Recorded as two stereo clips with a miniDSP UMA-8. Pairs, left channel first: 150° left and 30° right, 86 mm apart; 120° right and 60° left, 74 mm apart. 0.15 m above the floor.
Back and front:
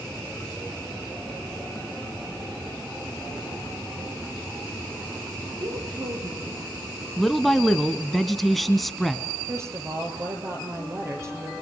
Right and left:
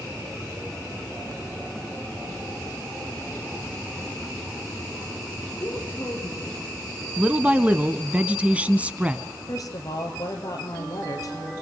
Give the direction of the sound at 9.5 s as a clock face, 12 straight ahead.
3 o'clock.